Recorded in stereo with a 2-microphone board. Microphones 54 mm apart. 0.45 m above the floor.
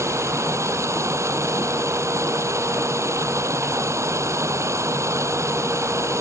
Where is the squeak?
No squeak in this recording.